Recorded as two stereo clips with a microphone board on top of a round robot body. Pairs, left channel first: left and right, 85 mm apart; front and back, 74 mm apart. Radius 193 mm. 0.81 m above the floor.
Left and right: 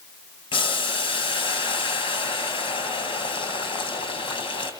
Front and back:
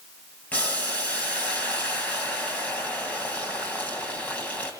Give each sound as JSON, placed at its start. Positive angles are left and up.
{"t": 0.5, "sound": "boiling", "azimuth_deg": 75, "distance_m": 2.5}